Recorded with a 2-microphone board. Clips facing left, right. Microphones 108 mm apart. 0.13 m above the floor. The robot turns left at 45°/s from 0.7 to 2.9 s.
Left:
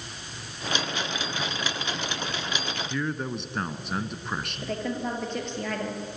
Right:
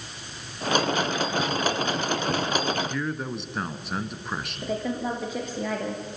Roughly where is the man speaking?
Centre.